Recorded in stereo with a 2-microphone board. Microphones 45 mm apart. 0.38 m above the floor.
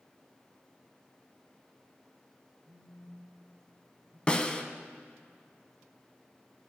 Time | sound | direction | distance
2.7 | a phone buzzing | 30° right (ahead or behind) | 1.2 m
4.3 | a snare drum | 25° left (ahead or behind) | 0.6 m